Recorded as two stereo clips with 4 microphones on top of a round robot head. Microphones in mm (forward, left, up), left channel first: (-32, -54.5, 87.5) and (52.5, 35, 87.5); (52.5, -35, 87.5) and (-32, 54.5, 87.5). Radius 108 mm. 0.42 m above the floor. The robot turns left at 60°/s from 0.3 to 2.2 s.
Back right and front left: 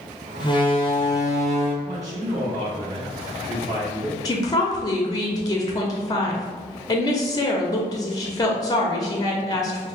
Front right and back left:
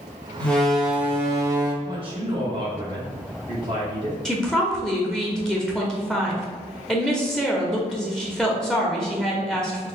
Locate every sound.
0.4 s a door slam: 120° right, 1.0 m; by 1.7 s 160° left, 1.0 m
1.8 s a man speaking: 115° left, 1.7 m; by 4.2 s 90° left, 1.7 m
4.2 s a woman speaking: 130° right, 0.9 m